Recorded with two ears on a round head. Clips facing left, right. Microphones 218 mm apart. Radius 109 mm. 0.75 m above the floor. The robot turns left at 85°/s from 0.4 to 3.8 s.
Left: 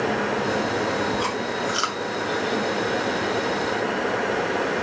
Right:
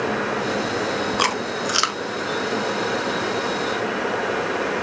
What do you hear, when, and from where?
1.2 s chewing: 85° right, 0.5 m; by 2.0 s 20° right (ahead or behind), 0.5 m